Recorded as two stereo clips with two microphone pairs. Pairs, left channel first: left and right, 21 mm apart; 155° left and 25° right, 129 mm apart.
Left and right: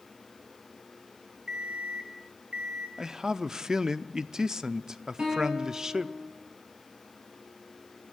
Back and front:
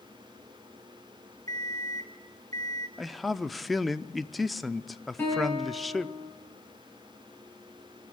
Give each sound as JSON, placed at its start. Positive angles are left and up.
{"t": 1.5, "sound": "an alarm clock", "azimuth_deg": -60, "distance_m": 2.0}
{"t": 3.0, "sound": "a man speaking", "azimuth_deg": -120, "distance_m": 0.7}
{"t": 5.2, "sound": "a guitar", "azimuth_deg": -130, "distance_m": 9.5}